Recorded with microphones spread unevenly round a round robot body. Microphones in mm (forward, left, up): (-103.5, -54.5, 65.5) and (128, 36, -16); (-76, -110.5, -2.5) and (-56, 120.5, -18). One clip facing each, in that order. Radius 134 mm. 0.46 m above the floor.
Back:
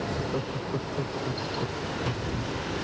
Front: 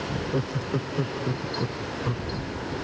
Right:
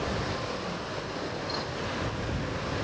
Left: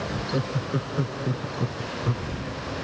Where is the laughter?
80° left; by 2.3 s 90° left.